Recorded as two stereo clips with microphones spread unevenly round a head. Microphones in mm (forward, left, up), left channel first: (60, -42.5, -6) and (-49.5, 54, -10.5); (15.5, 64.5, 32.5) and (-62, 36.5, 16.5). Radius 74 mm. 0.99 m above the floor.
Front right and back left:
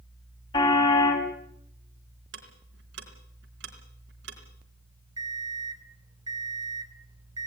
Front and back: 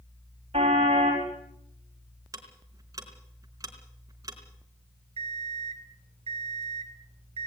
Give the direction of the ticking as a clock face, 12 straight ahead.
7 o'clock.